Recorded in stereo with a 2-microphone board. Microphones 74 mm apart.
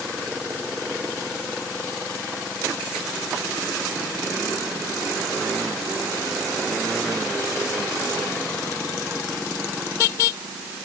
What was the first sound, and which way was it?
Only background noise.